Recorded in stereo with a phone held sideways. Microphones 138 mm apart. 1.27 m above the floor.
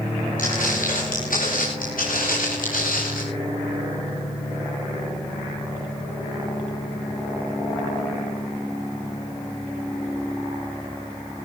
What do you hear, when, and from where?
0.4 s footsteps: 75° left (ahead or behind), 9.5 m; by 3.2 s 80° left, 10.5 m